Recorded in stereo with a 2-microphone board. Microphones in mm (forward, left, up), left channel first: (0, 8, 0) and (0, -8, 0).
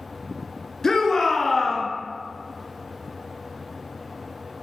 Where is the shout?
30° left (ahead or behind), 1.3 m; by 1.9 s 10° left (ahead or behind), 1.2 m.